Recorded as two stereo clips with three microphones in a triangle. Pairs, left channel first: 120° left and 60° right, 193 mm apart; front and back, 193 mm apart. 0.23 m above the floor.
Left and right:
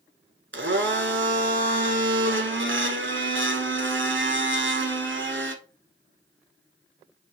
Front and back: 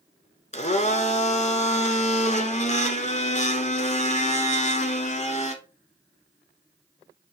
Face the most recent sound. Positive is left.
turn(degrees=-55)